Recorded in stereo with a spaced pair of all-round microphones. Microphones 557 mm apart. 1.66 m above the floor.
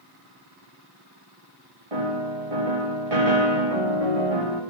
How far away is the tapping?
No tapping in this recording.